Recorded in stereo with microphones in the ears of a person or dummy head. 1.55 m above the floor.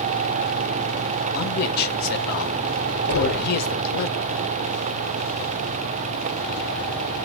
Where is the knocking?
85° left, 4 m.